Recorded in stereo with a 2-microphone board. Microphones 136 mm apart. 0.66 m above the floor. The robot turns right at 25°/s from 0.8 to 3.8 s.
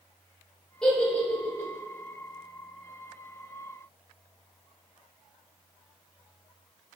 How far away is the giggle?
About 3 m.